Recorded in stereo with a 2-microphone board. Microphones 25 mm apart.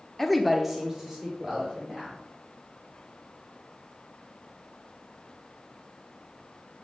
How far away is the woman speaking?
About 0.9 m.